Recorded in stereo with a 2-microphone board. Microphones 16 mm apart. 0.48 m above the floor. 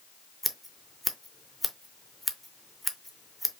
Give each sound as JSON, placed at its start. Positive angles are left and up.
{"t": 0.4, "sound": "scissors", "side_deg": 5, "distance_m": 0.5}